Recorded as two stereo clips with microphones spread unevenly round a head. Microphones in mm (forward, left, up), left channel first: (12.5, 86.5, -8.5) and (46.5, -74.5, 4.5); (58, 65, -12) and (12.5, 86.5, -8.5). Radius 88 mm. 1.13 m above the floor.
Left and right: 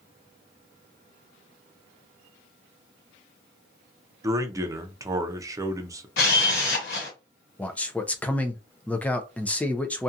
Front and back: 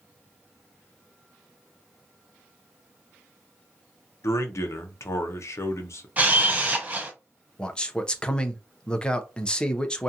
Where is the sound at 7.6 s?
30° left, 0.5 m.